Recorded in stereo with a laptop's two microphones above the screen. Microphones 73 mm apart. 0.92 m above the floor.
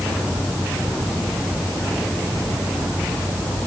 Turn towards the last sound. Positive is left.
No sound to turn to.